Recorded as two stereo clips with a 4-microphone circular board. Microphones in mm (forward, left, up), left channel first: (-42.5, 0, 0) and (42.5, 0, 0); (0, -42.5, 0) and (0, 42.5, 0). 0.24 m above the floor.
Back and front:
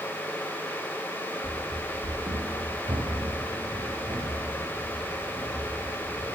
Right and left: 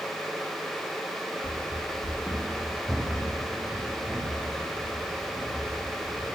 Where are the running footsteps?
80° right, 0.7 m; by 6.3 s 30° left, 4 m.